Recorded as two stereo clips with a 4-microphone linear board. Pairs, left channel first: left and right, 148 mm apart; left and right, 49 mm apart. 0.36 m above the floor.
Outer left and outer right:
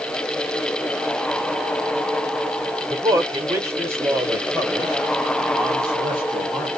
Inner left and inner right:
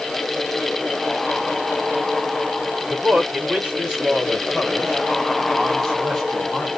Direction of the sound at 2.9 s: 25° right (ahead or behind).